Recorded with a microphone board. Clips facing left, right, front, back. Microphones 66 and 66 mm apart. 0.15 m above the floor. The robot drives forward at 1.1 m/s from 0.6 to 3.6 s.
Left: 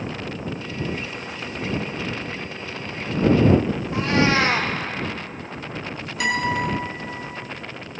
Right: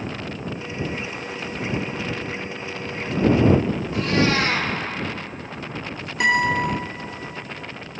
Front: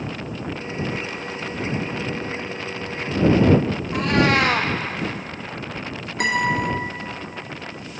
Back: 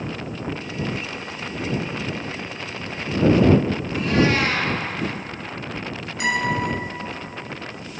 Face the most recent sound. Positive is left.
turn(degrees=-35)